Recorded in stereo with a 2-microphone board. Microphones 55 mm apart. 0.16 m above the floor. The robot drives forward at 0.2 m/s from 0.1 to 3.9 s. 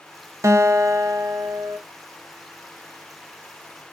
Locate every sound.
0.4 s a guitar: 60° right (ahead or behind), 0.6 m; by 1.8 s 65° right (ahead or behind), 0.6 m